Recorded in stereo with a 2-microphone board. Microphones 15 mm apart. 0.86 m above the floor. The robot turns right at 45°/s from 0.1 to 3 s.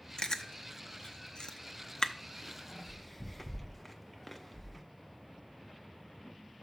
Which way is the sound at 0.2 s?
50° left (ahead or behind).